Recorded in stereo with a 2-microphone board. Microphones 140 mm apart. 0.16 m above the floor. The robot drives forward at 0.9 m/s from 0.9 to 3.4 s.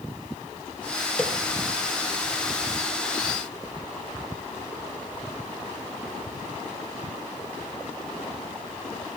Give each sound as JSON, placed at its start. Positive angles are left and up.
{"t": 1.2, "sound": "a snare drum", "side_deg": 10, "distance_m": 0.9}